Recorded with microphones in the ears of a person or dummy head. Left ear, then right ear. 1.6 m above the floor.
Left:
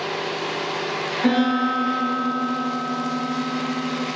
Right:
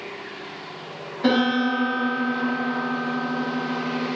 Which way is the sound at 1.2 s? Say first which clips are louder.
Right 1 dB; 40° left (ahead or behind).